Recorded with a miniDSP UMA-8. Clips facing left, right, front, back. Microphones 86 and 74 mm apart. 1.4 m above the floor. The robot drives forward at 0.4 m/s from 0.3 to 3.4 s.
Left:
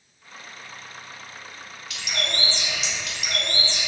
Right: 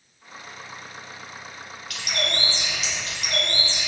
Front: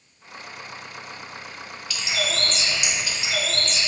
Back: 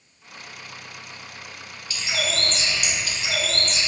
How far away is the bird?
About 1.3 m.